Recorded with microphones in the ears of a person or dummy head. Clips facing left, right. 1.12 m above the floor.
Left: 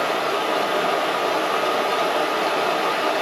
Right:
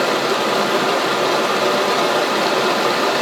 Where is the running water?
65° right (ahead or behind), 0.7 m.